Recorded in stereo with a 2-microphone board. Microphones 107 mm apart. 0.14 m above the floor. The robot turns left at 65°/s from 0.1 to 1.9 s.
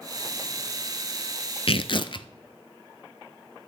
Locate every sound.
1.7 s tearing paper: 65° left (ahead or behind), 0.5 m; by 2.3 s 55° left (ahead or behind), 0.5 m